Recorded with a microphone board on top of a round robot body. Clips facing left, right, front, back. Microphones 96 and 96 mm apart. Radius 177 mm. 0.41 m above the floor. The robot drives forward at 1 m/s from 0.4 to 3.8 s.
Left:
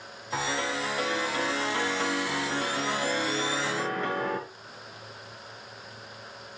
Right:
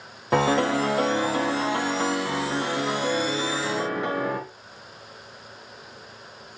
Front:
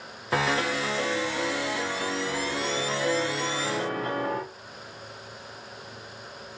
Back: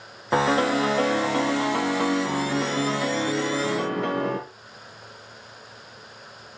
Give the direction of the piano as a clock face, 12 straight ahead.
4 o'clock.